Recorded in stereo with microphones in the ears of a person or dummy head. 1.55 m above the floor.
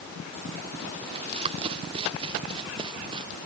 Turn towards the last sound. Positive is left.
turn(degrees=-25)  # may be behind; listen again after turning